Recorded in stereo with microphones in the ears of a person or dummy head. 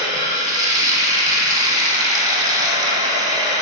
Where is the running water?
20° right (ahead or behind), 1.4 m.